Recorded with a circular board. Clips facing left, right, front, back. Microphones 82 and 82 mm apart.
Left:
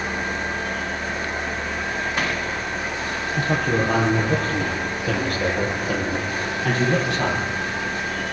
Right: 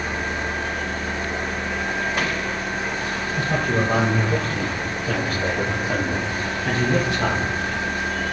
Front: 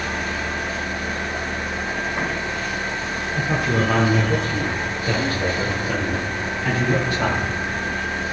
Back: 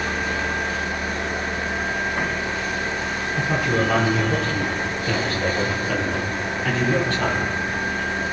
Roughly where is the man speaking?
Left.